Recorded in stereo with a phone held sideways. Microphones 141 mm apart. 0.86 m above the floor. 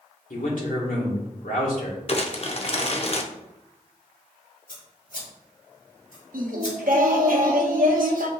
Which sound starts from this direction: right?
Singing, at 6.3 s.